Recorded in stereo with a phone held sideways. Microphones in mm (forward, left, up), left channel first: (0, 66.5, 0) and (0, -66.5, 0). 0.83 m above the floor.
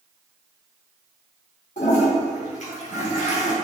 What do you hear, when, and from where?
1.8 s a toilet flushing: 70° left (ahead or behind), 3 m